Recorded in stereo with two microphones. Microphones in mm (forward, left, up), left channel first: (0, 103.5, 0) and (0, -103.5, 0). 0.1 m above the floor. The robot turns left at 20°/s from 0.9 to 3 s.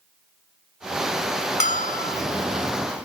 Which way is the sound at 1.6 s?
35° left (ahead or behind).